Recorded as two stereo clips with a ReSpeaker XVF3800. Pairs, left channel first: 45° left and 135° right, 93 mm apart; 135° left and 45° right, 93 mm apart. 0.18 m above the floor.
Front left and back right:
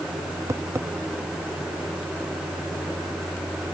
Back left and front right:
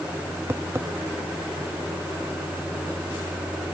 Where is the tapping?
95° right.